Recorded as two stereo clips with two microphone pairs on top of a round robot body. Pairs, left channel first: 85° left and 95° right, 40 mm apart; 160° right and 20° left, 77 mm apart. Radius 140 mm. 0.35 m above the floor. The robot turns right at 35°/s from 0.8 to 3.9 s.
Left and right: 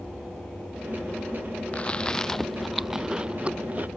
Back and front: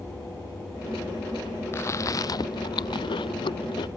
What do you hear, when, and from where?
1.7 s chewing: 140° left; by 3.9 s 145° right